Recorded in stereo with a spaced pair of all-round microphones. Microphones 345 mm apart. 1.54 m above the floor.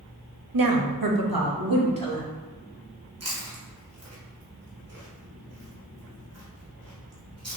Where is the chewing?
45° right (ahead or behind), 1.2 m.